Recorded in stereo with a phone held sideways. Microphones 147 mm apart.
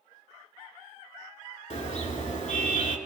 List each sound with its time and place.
1.7 s a car horn: 60° left (ahead or behind), 6.5 m